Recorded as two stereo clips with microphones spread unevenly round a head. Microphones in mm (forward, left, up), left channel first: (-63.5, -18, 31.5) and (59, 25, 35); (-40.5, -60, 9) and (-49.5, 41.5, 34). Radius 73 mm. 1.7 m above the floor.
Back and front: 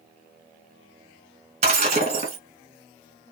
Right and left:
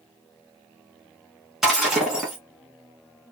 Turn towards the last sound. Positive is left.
turn(degrees=25)